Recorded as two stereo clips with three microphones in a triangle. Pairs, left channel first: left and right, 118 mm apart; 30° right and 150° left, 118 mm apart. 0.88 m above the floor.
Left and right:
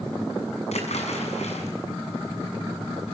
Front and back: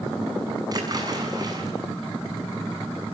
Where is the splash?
95° left, 7 m.